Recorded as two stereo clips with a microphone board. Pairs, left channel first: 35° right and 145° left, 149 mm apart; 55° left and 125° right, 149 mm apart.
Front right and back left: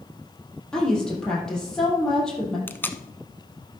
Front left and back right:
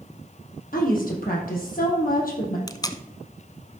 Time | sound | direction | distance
0.7 | a woman speaking | 50° left | 3.5 m
2.7 | tape being pulled | 30° left | 0.7 m